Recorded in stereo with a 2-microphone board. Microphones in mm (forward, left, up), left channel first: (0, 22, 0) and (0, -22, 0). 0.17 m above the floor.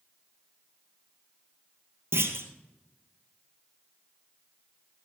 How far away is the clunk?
About 2 m.